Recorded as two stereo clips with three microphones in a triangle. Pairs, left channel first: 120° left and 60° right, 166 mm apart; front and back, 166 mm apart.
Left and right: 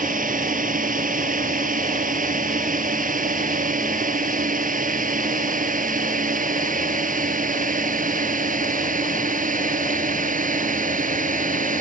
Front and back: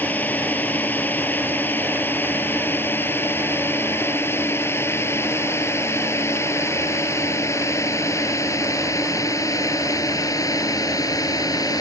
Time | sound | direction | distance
0.0 | a drone | 80° right | ?